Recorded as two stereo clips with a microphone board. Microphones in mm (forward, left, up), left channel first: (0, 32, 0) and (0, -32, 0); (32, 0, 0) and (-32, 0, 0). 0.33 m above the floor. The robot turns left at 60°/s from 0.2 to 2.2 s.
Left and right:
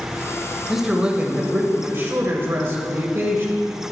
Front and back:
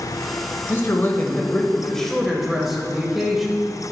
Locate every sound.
0.7 s a man speaking: straight ahead, 1.1 m; by 3.6 s 90° right, 1.1 m